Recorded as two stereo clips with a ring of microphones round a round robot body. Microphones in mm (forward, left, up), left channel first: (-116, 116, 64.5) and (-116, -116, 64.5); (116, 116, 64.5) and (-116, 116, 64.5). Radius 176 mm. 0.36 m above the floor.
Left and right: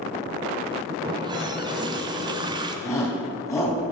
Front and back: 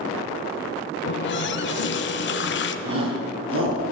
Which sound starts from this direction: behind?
A shout, at 2.9 s.